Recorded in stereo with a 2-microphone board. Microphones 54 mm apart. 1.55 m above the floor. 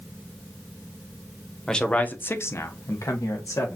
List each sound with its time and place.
1.7 s a man speaking: 10° left (ahead or behind), 0.8 m; by 3.8 s 70° left (ahead or behind), 1.2 m